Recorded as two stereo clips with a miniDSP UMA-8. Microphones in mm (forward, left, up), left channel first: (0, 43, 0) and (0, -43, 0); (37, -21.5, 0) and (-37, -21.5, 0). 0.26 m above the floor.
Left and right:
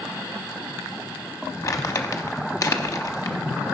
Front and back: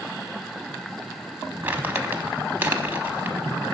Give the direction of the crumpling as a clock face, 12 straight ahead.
8 o'clock.